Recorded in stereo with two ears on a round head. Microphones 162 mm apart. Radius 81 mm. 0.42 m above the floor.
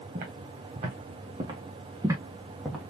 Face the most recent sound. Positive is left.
turn(degrees=-5)  # may be behind; listen again after turning